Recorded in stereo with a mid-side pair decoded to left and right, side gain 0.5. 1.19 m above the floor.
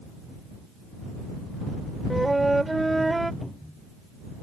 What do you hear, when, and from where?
2.1 s a flute: 10° right
3.4 s a cupboard door: 5° left